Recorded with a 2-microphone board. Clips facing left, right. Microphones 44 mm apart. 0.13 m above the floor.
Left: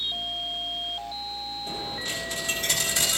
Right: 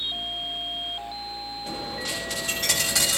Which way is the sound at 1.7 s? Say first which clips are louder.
Right 2 dB; 65° right (ahead or behind).